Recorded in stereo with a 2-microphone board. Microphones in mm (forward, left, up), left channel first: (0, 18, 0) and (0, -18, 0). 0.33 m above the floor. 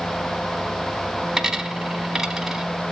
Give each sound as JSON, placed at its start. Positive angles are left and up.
{"t": 1.4, "sound": "a dropped coin", "side_deg": -15, "distance_m": 1.0}